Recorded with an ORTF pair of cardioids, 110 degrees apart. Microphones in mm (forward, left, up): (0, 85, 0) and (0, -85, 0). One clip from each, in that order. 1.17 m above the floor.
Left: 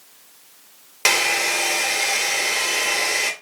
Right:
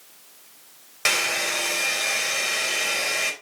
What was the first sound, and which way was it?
A hair dryer, 35° left.